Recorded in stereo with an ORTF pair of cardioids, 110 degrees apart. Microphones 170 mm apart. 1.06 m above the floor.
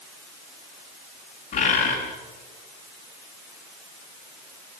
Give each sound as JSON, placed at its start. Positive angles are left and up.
{"t": 1.5, "sound": "a bird", "azimuth_deg": 45, "distance_m": 8.0}